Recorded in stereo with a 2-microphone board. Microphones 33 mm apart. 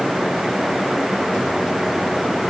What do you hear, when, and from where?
Only background noise.